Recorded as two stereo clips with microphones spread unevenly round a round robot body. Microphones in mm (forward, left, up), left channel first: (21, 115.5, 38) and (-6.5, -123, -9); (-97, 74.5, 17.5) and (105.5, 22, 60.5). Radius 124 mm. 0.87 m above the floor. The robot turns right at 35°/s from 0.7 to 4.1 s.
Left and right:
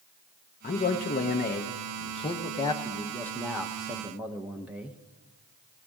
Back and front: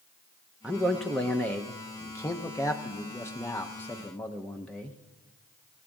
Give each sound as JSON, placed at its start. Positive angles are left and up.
{"t": 0.6, "sound": "a man speaking", "azimuth_deg": 95, "distance_m": 0.8}